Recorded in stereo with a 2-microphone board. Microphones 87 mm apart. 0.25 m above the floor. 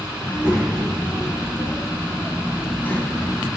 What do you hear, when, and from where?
0.2 s a child speaking: 15° right (ahead or behind), 0.9 m; by 3.5 s 25° left (ahead or behind), 1.3 m